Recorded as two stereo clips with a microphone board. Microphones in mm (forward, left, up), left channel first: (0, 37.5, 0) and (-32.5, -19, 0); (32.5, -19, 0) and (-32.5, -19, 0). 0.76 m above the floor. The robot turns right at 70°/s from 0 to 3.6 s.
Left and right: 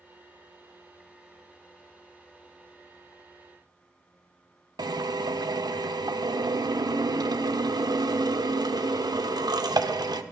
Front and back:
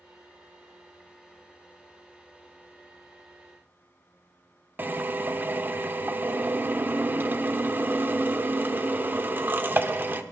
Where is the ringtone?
I don't hear a ringtone.